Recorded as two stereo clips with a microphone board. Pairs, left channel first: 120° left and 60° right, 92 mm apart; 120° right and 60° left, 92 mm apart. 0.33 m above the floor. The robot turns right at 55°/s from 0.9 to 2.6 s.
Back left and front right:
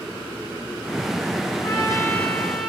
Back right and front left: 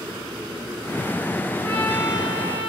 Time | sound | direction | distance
1.6 | a trumpet | 165° left | 2.5 m